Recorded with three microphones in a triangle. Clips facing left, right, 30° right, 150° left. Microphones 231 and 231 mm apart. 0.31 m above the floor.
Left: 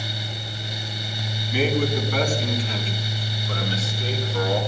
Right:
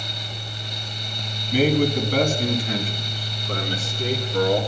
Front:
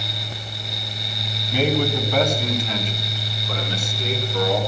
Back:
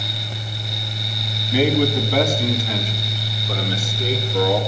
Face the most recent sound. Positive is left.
turn(degrees=-125)